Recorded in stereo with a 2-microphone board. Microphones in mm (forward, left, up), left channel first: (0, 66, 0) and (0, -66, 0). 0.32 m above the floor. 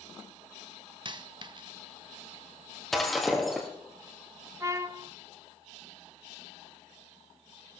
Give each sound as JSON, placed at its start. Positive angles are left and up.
{"t": 1.1, "sound": "a dropped coin", "side_deg": -35, "distance_m": 0.7}
{"t": 2.9, "sound": "breaking glass", "side_deg": 0, "distance_m": 3.0}
{"t": 4.6, "sound": "a trumpet", "side_deg": -25, "distance_m": 0.6}